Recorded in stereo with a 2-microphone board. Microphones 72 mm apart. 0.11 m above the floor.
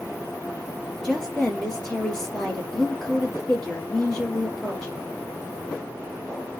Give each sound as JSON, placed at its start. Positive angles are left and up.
{"t": 1.0, "sound": "a woman speaking", "side_deg": 5, "distance_m": 2.5}